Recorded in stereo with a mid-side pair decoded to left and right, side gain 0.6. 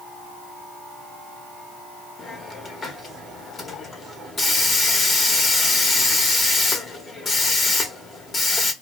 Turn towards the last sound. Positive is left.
turn(degrees=25)